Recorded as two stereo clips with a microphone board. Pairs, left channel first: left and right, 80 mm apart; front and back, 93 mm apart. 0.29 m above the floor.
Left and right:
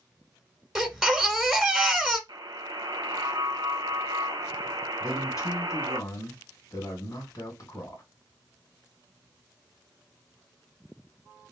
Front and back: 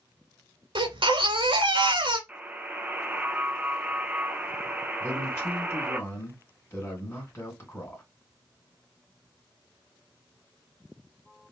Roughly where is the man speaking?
Ahead left.